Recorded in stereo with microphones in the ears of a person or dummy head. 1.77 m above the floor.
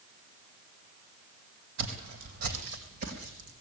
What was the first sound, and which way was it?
Footsteps, 60° right (ahead or behind).